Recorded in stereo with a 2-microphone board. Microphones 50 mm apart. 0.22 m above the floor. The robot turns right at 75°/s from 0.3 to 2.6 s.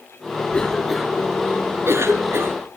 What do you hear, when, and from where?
0.5 s a cough: 25° left (ahead or behind), 2.5 m; by 2.6 s 50° right (ahead or behind), 2.5 m